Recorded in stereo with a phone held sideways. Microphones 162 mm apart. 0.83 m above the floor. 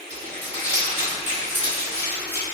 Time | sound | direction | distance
0.1 | crumpling | 45° right (ahead or behind) | 2.0 m